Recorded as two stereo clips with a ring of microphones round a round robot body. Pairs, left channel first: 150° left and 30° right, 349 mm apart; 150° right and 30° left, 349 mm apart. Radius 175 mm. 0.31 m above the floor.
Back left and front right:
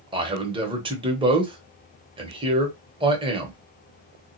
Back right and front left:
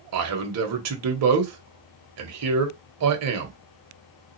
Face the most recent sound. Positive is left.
turn(degrees=40)